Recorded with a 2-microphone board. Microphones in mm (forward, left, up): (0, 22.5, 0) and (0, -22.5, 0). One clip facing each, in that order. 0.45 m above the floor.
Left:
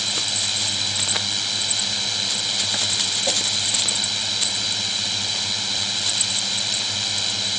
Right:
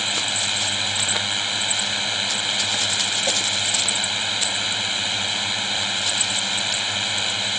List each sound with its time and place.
0.0 s a drone: 25° right (ahead or behind)